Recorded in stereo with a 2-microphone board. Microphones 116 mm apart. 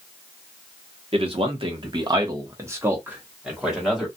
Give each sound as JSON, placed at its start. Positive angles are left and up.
{"t": 1.1, "sound": "a man speaking", "side_deg": -50, "distance_m": 1.1}